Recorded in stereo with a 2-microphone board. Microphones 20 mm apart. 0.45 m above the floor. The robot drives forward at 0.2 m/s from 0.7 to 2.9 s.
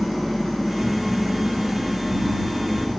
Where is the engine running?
10° right (ahead or behind), 2.5 m; by 3.0 s 5° right (ahead or behind), 2.5 m.